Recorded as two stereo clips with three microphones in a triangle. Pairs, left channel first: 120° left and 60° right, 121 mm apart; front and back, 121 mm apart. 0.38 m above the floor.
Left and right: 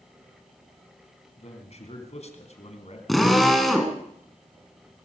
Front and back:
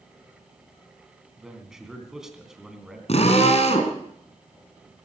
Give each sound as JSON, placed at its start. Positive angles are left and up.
{"t": 1.4, "sound": "a man speaking", "azimuth_deg": 95, "distance_m": 3.5}
{"t": 3.1, "sound": "a drill", "azimuth_deg": 30, "distance_m": 2.5}